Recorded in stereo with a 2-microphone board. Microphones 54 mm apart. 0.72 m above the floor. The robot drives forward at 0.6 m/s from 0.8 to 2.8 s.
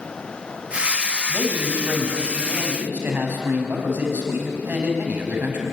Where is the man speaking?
40° right (ahead or behind), 5.5 m; by 5.6 s 35° right (ahead or behind), 6.5 m.